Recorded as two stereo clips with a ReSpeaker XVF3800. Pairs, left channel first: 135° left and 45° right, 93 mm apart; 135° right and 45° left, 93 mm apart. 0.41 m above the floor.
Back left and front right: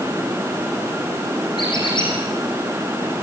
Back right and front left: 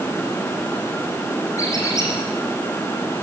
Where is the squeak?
170° left, 8 m.